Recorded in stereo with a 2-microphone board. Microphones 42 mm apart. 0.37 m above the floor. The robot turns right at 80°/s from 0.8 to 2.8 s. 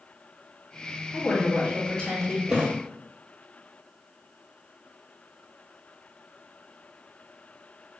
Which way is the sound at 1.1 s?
90° left.